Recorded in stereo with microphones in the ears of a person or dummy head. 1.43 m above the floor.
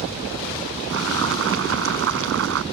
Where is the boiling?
65° right (ahead or behind).